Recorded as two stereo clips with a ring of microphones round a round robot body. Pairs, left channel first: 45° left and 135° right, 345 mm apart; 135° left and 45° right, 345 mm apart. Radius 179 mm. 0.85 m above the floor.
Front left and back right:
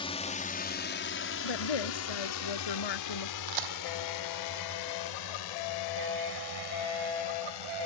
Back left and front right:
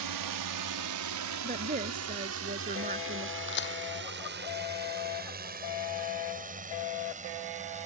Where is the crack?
165° right.